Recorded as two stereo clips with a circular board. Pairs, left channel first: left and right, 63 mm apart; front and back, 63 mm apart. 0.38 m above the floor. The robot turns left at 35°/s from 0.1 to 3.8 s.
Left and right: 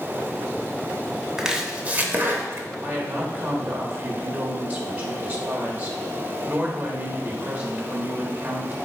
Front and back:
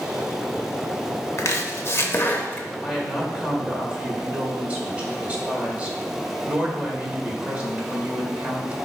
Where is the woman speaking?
105° right, 1.4 m; by 8.8 s 140° right, 1.4 m.